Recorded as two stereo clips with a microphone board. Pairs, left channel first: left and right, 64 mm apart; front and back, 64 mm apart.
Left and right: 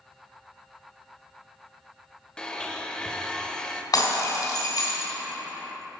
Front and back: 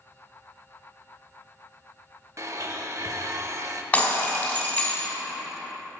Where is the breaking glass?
70° left, 2 m.